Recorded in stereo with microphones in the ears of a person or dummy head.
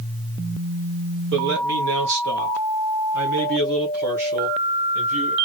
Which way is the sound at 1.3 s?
65° right (ahead or behind).